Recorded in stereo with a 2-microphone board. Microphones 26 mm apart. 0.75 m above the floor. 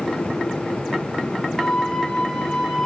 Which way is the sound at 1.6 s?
35° left (ahead or behind).